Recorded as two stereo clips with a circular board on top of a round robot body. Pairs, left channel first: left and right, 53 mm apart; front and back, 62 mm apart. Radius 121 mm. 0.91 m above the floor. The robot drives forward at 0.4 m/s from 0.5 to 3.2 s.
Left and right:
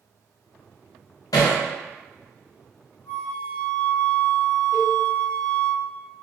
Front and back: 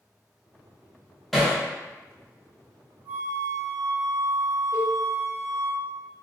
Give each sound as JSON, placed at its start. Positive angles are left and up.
{"t": 1.3, "sound": "hammering", "azimuth_deg": 90, "distance_m": 0.5}
{"t": 3.0, "sound": "a flute", "azimuth_deg": 150, "distance_m": 1.3}
{"t": 4.7, "sound": "a cowbell", "azimuth_deg": 165, "distance_m": 0.9}